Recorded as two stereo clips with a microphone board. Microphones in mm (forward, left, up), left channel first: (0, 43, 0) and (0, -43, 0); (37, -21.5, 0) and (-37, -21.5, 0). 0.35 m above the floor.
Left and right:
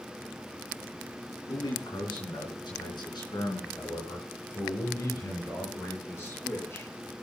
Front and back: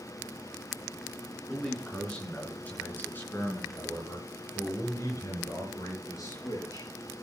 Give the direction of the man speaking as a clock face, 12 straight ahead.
9 o'clock.